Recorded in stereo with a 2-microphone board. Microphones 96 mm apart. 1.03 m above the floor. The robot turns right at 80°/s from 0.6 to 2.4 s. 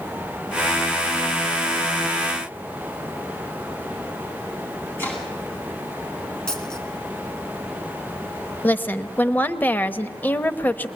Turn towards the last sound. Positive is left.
turn(degrees=20)  # may be behind; listen again after turning